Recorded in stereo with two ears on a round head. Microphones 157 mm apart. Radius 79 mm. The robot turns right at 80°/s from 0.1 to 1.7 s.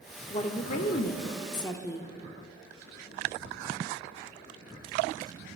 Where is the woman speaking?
40° left, 1.0 m; by 2.1 s 155° left, 1.0 m.